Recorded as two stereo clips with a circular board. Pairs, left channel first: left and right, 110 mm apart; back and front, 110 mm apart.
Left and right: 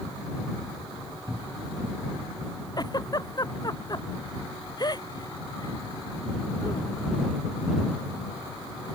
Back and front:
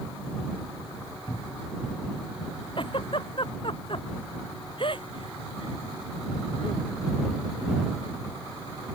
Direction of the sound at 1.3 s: 135° right.